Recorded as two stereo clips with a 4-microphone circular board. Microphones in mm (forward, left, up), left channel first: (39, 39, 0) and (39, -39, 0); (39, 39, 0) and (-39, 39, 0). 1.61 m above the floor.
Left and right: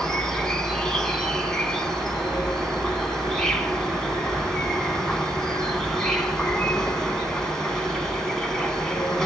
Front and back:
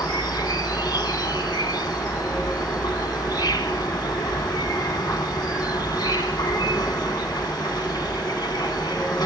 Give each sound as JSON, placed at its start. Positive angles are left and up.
{"t": 0.0, "sound": "an insect", "azimuth_deg": 10, "distance_m": 2.5}